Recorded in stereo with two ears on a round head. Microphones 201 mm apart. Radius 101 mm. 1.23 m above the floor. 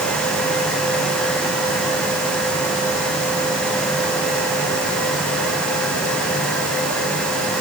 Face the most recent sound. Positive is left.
No sound to turn to.